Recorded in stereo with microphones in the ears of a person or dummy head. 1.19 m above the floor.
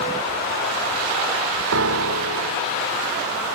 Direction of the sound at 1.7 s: 75° right (ahead or behind).